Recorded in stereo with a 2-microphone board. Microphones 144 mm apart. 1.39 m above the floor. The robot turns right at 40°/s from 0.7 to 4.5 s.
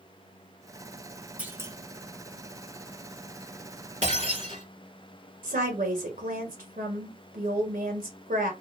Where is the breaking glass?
50° right (ahead or behind), 2.5 m; by 4.6 s 40° right (ahead or behind), 2.5 m.